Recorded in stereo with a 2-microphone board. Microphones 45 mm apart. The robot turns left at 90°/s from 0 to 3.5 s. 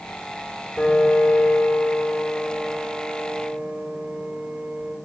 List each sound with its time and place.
0.8 s a piano: 155° left, 5.5 m; by 5.0 s 90° right, 5.5 m